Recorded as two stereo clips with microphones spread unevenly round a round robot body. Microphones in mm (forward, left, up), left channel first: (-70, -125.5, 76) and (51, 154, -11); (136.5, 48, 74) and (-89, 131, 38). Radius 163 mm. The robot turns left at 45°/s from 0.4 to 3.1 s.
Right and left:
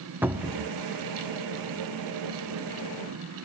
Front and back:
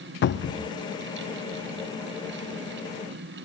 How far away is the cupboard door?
About 0.8 m.